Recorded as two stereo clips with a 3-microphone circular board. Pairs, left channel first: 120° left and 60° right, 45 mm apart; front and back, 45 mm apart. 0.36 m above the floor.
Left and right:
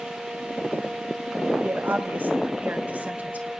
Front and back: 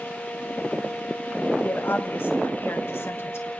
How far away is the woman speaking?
About 2 m.